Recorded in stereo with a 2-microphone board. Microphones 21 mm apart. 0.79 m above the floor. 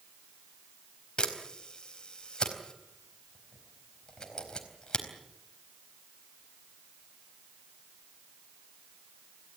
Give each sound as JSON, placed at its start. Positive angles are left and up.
{"t": 1.2, "sound": "a camera shutter", "side_deg": 45, "distance_m": 4.0}